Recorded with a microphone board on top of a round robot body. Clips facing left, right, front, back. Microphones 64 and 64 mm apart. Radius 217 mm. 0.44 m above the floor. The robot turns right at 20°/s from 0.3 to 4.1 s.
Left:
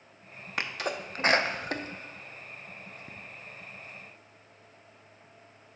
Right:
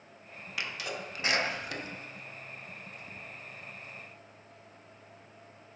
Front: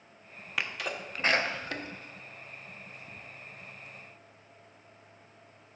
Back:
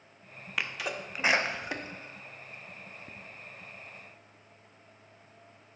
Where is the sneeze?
90° left, 1.1 m; by 3.1 s 140° left, 1.1 m.